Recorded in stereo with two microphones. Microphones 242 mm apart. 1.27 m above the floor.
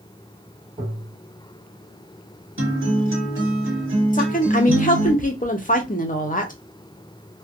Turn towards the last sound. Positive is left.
turn(degrees=35)  # may be behind; listen again after turning